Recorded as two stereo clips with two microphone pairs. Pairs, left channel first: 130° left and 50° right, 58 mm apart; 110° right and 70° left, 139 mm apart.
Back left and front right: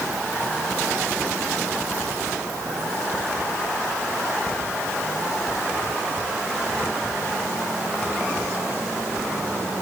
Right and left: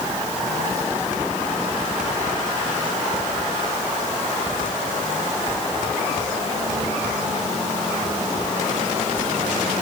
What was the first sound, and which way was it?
Only background noise.